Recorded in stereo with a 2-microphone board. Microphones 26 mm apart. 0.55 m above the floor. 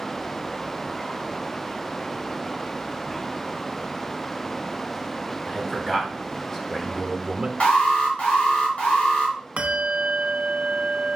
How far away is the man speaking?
About 3.5 m.